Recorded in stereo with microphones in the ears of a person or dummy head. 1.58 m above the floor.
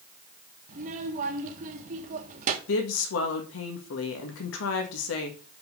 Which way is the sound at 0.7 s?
50° right (ahead or behind).